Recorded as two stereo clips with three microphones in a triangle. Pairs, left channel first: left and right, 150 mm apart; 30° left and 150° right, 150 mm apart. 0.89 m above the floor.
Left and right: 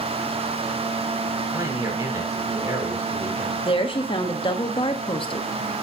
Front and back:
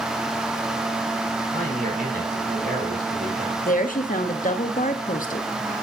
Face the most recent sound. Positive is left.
turn(degrees=40)